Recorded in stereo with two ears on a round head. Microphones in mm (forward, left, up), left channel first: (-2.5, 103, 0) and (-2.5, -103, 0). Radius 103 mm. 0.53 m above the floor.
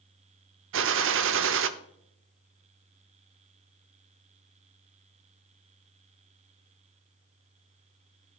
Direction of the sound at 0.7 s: 60° right (ahead or behind).